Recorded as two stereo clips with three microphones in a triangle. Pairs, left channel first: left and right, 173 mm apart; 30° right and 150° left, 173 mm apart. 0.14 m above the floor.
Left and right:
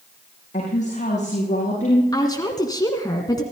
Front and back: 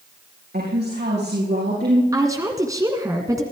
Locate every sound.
0.5 s a woman speaking: 135° left, 6.5 m
2.1 s a woman speaking: 115° left, 1.8 m